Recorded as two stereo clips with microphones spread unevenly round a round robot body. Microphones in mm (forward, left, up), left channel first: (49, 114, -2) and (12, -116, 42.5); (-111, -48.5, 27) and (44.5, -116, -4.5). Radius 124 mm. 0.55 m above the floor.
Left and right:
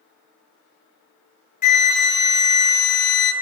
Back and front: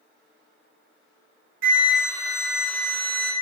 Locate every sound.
1.6 s a flute: 20° left, 0.7 m